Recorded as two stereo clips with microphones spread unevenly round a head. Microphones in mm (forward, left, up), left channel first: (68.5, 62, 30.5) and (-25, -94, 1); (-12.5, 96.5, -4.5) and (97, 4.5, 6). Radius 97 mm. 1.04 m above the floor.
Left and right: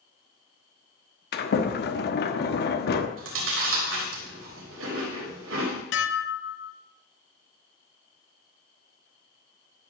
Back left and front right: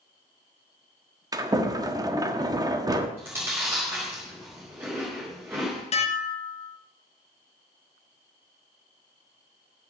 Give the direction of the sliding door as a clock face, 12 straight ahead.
11 o'clock.